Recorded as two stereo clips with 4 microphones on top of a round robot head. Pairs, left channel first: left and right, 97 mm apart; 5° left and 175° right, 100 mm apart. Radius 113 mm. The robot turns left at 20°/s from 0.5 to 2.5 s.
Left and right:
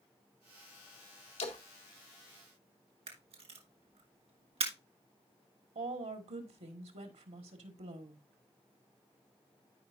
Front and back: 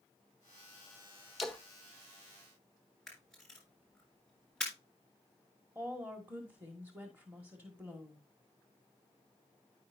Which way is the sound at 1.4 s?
100° left.